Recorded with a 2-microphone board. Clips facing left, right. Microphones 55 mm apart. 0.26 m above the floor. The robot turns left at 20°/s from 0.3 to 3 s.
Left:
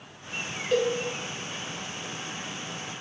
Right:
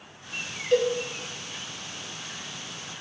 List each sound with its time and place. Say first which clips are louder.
0.7 s a cowbell: right 2 dB; 5° left (ahead or behind), 0.6 m